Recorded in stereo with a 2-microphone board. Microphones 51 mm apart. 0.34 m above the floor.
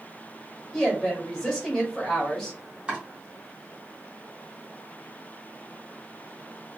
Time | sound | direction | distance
0.7 | a woman speaking | 10° left (ahead or behind) | 1.6 m
2.9 | chopping | 15° right (ahead or behind) | 1.5 m